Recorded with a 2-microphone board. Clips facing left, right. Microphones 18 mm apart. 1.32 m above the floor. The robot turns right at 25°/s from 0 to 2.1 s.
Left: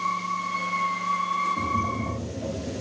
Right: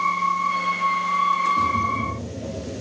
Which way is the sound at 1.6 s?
5° left (ahead or behind).